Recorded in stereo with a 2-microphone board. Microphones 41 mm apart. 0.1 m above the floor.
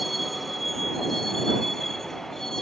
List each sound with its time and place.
0.0 s a vehicle: centre (ahead or behind); by 2.6 s 5° left (ahead or behind)